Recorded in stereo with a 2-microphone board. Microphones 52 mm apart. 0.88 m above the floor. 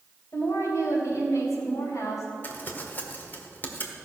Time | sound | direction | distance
0.3 | a woman speaking | 75° left (ahead or behind) | 4 m
2.4 | crumpling | 35° left (ahead or behind) | 1.3 m